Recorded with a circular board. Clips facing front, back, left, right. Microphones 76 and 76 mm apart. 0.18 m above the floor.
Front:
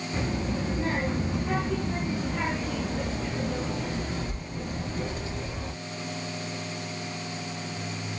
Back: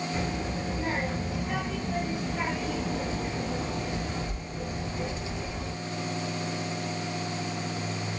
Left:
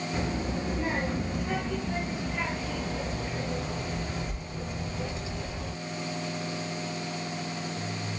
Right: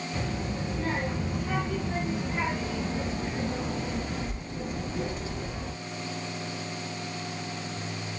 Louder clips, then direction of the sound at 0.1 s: Front 2 dB, left 2 dB; 30° left.